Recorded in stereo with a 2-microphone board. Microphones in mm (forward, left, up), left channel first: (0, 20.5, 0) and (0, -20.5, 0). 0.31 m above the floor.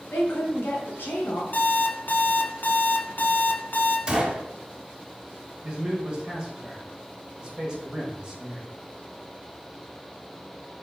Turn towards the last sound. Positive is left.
turn(degrees=-25)  # may be behind; listen again after turning